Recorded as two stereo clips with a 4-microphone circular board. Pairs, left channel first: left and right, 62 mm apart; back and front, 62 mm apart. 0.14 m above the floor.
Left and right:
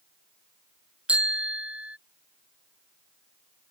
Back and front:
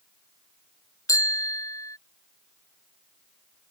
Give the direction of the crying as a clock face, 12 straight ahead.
I don't hear crying.